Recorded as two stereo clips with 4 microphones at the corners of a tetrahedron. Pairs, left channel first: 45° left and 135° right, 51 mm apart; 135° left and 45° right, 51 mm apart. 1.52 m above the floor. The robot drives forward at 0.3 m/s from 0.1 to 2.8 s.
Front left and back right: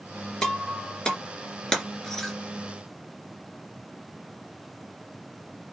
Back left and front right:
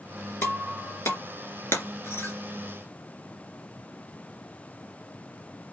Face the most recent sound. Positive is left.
turn(degrees=130)